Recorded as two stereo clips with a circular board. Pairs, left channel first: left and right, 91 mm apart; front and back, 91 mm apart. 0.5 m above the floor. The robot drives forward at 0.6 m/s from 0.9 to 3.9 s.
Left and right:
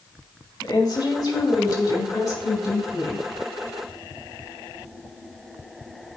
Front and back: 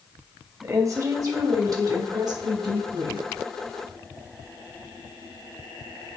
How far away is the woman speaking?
About 3 m.